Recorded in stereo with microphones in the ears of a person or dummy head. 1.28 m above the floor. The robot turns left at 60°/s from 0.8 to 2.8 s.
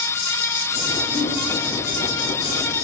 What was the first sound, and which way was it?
A giggle, 20° left (ahead or behind).